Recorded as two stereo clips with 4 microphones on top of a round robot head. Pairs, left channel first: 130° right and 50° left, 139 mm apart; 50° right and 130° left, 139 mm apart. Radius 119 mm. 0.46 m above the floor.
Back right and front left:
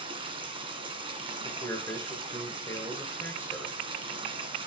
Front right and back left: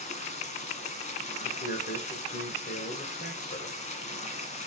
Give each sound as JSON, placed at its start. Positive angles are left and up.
{"t": 0.0, "sound": "running water", "azimuth_deg": -5, "distance_m": 1.9}
{"t": 1.4, "sound": "a man speaking", "azimuth_deg": -60, "distance_m": 2.5}